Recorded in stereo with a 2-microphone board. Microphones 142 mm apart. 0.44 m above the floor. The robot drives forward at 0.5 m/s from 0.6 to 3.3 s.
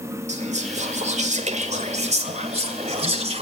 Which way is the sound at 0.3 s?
50° right (ahead or behind).